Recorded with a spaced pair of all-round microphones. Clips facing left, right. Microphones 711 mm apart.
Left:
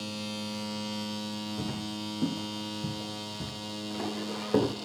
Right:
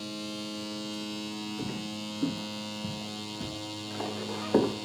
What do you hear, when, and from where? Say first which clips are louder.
1.6 s footsteps: even; 70° left (ahead or behind), 5 m; by 4.8 s 45° left (ahead or behind), 5 m